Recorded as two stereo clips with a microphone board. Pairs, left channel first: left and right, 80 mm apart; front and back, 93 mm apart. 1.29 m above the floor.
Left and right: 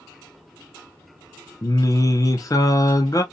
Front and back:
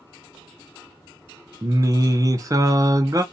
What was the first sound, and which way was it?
Singing, 130° left.